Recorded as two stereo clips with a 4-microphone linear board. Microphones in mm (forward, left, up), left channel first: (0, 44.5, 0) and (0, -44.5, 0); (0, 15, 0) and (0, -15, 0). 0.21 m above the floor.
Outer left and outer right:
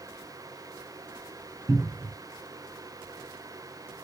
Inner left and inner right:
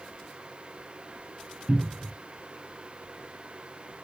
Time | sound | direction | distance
1.7 | a cupboard door | 40° right (ahead or behind) | 0.6 m